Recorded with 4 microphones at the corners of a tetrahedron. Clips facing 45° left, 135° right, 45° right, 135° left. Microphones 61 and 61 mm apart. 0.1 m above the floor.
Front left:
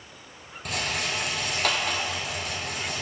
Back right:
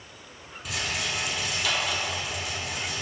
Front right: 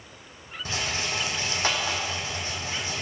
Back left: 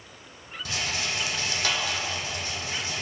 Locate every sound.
0.7 s a rattle: 15° left, 1.0 m